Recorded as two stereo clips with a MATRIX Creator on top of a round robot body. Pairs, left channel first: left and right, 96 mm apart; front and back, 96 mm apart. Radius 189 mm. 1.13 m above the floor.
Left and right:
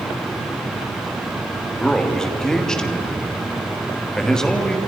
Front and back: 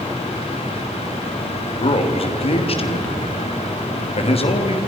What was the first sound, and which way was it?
A man speaking, 5° left.